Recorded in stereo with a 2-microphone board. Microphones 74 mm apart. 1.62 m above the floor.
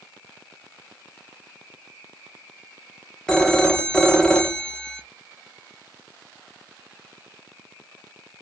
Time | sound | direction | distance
3.3 | a phone ringing | 5° left (ahead or behind) | 0.7 m